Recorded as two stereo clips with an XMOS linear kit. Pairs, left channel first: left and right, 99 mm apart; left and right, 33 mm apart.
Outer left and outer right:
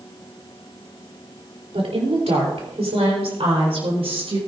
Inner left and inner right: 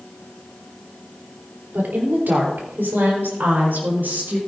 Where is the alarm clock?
I don't hear an alarm clock.